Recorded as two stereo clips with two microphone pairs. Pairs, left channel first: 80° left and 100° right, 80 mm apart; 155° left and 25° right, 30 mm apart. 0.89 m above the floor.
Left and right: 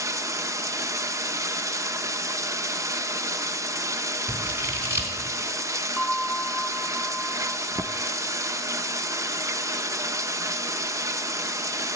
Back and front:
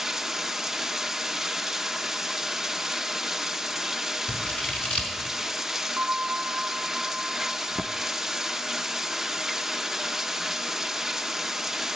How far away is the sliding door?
I don't hear a sliding door.